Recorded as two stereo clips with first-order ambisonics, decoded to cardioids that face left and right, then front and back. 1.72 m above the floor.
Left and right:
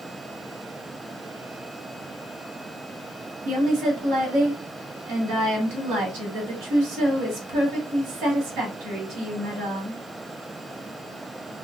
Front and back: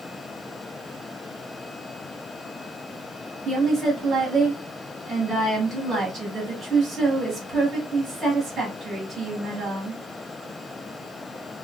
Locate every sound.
3.5 s a woman speaking: 110° right, 1.4 m